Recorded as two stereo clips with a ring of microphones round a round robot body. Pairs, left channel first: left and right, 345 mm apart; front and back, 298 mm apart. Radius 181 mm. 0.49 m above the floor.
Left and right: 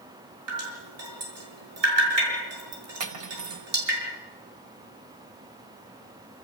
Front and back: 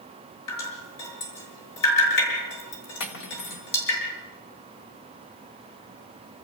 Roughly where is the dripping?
Ahead right.